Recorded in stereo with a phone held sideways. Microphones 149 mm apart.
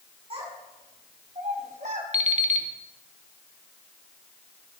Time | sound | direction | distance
0.3 | a child speaking | 45° right (ahead or behind) | 4 m
2.1 | an alarm clock | 50° right (ahead or behind) | 0.8 m